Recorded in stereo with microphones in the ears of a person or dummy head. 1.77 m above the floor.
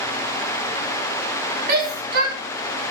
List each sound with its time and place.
1.7 s a shout: 55° right (ahead or behind), 5 m